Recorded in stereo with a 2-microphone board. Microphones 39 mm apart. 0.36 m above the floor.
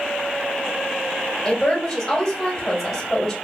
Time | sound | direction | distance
1.4 | a woman speaking | 10° left (ahead or behind) | 1.2 m